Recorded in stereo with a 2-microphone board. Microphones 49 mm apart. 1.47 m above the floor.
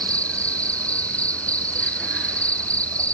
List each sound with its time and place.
0.0 s an insect: 30° left (ahead or behind)